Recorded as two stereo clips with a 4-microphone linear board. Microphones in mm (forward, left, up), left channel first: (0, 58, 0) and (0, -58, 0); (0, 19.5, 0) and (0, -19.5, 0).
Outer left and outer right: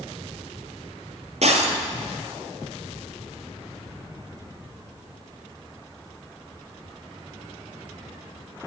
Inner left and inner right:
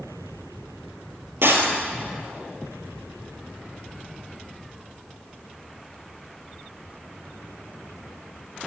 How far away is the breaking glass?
About 1.6 m.